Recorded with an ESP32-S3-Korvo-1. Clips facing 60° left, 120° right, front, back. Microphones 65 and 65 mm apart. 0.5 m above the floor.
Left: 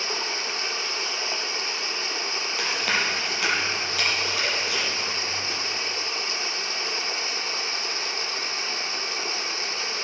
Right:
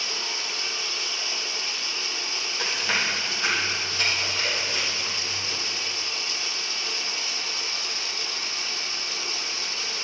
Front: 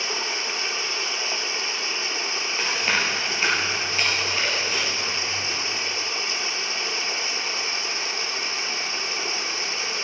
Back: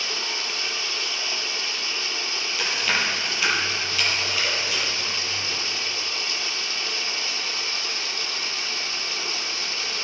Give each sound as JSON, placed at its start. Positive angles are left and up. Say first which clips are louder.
{"t": 0.0, "sound": "running water", "louder": "left 3 dB, front 2 dB", "azimuth_deg": 50, "distance_m": 0.8}
{"t": 2.6, "sound": "chewing", "louder": "left 1 dB, even", "azimuth_deg": 55, "distance_m": 5.0}